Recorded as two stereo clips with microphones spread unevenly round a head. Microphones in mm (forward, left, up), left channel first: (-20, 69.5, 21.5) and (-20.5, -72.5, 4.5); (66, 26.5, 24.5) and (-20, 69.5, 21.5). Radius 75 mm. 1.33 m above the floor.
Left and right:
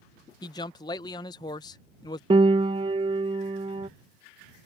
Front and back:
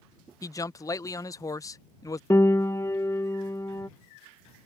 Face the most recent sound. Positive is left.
turn(degrees=-60)